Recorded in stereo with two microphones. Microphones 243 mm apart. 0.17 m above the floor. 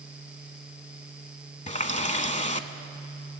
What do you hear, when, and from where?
1.7 s a running tap: 30° left (ahead or behind), 0.8 m